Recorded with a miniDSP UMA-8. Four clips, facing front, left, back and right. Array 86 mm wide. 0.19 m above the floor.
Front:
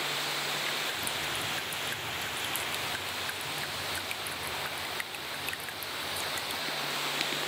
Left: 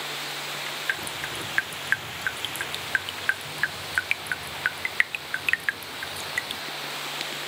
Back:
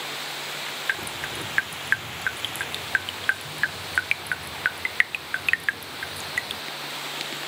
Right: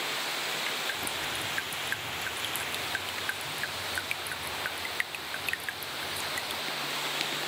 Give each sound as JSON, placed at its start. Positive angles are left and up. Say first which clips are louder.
{"t": 0.9, "sound": "dripping", "louder": "left 3 dB, back 5 dB", "azimuth_deg": 150}